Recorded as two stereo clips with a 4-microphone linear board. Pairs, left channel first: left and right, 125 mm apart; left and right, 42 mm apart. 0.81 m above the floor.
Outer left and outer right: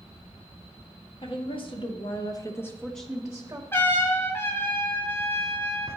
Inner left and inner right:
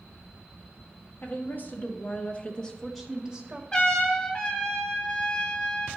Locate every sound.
1.2 s a woman speaking: 45° left (ahead or behind), 1.5 m; by 3.6 s 15° right (ahead or behind), 1.1 m
3.7 s a trumpet: 20° left (ahead or behind), 1.3 m